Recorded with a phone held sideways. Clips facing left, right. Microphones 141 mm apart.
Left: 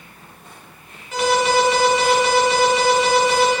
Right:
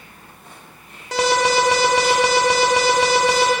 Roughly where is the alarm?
Right.